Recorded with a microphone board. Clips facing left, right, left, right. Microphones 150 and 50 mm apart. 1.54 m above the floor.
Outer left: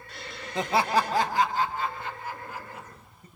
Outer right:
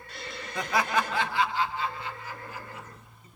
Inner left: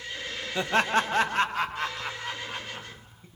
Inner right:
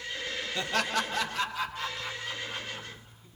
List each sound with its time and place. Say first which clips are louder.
0.6 s laughter: outer left 3 dB, inner left 6 dB; 20° left (ahead or behind), 0.5 m; by 3.3 s 55° left (ahead or behind), 1.9 m